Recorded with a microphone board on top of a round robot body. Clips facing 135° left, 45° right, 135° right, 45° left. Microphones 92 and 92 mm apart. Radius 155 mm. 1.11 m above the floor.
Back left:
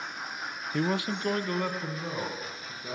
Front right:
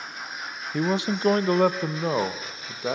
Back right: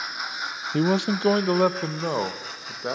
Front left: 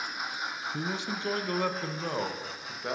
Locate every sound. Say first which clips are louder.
0.7 s a man speaking: front right 4 dB, back right 15 dB; 130° right, 0.5 m; by 3.0 s 70° right, 1.7 m